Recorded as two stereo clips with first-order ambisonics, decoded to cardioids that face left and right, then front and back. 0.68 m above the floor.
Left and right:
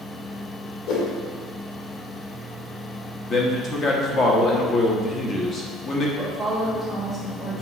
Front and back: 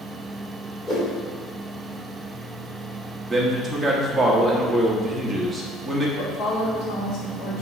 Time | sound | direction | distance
0.9 | a whoosh | 75° left | 2.5 m
3.3 | a man speaking | 100° left | 1.1 m
6.2 | a woman speaking | 10° left | 1.9 m